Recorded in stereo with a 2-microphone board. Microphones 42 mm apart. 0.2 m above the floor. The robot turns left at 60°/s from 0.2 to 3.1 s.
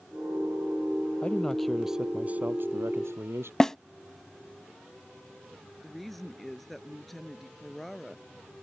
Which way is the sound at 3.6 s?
15° left (ahead or behind).